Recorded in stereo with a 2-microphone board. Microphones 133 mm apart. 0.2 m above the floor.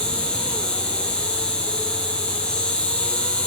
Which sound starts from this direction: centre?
An insect, at 0.0 s.